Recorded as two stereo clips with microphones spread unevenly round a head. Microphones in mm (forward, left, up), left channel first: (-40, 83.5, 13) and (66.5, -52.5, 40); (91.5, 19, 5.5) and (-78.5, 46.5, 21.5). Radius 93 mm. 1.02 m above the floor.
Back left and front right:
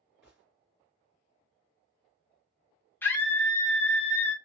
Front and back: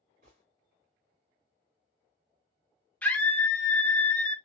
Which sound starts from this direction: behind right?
A gunshot, at 0.2 s.